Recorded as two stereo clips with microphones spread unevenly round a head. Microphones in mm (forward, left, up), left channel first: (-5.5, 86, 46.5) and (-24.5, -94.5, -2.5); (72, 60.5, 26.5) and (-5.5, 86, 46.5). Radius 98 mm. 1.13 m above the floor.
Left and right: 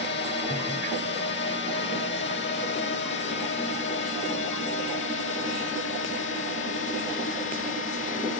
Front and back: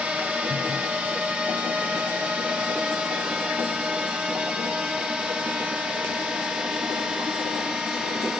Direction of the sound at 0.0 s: 85° left.